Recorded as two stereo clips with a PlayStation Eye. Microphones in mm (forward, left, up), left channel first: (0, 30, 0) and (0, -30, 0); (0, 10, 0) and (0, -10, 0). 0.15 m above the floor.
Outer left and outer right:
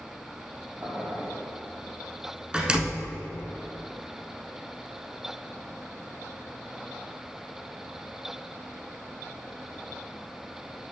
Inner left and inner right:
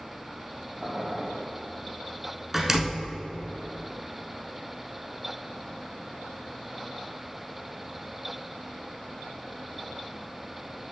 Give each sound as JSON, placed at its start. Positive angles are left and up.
{"t": 0.8, "sound": "boiling", "side_deg": -35, "distance_m": 2.5}
{"t": 2.5, "sound": "a door slam", "side_deg": -15, "distance_m": 1.0}